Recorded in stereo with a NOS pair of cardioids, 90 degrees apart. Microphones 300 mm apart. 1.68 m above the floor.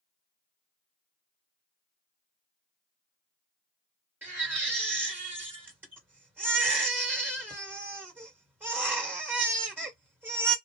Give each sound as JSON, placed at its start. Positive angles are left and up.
{"t": 4.2, "sound": "a baby crying", "azimuth_deg": -5, "distance_m": 1.5}